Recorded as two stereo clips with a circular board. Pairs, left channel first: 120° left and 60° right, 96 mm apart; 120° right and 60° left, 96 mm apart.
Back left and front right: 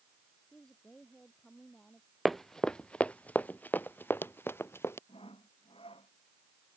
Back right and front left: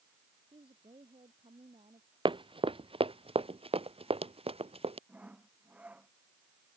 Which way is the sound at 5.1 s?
135° left.